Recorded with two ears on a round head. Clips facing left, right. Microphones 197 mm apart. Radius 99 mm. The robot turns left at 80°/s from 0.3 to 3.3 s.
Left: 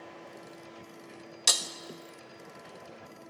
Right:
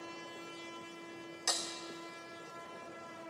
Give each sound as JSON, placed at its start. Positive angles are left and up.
{"t": 1.5, "sound": "breaking glass", "side_deg": 45, "distance_m": 0.7}